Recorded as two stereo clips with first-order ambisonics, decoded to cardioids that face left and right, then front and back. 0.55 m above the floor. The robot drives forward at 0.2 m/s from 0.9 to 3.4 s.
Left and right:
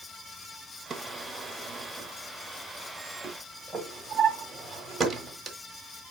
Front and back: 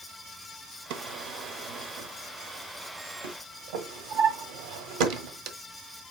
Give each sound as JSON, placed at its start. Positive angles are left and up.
{"t": 0.9, "sound": "a drawer", "azimuth_deg": -165, "distance_m": 0.9}